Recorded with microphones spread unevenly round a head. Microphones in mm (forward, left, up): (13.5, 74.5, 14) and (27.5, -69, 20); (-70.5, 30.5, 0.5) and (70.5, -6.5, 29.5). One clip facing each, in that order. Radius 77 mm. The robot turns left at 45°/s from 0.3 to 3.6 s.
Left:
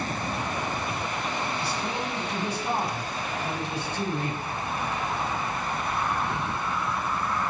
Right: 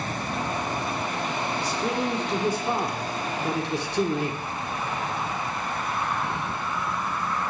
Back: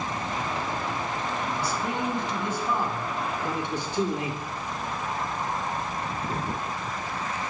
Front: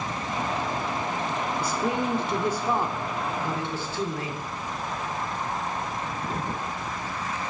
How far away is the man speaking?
About 2.5 m.